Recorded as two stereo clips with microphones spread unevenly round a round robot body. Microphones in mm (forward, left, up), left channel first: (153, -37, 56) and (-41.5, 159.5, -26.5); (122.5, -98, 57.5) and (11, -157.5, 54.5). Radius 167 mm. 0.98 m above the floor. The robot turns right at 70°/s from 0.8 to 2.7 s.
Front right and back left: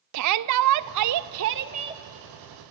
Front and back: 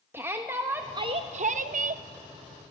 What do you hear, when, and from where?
0.1 s a shout: 130° left, 0.7 m; by 2.0 s 145° right, 0.7 m